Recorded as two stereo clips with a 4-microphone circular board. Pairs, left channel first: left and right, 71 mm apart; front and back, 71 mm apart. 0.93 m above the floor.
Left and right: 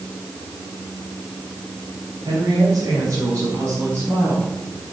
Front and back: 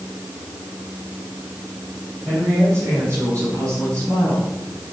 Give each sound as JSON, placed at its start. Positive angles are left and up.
{"t": 2.2, "sound": "a woman speaking", "azimuth_deg": -125, "distance_m": 4.5}